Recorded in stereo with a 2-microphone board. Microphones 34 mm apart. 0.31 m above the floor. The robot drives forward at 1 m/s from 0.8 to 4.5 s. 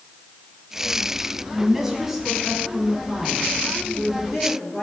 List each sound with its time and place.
1.6 s a woman speaking: 15° right (ahead or behind), 1.7 m; by 4.8 s 5° right (ahead or behind), 4.5 m